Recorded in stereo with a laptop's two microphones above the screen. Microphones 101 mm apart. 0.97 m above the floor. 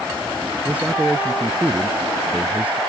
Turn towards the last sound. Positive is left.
turn(degrees=-15)  # may be behind; listen again after turning